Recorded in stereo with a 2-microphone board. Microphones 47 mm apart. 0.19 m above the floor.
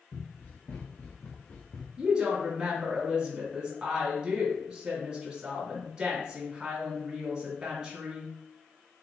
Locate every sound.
0.1 s running footsteps: 55° left (ahead or behind), 2.5 m; by 1.9 s 35° left (ahead or behind), 1.2 m
2.0 s a woman speaking: 20° right (ahead or behind), 1.7 m